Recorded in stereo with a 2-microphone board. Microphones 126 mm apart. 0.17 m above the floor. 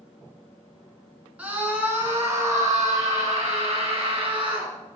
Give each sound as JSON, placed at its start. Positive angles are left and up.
{"t": 1.4, "sound": "a scream", "side_deg": -10, "distance_m": 1.9}